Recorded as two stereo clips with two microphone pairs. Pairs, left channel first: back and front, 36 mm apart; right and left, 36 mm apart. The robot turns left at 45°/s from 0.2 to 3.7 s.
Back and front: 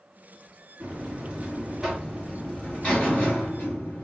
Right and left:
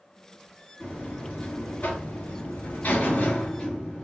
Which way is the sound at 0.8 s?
35° right.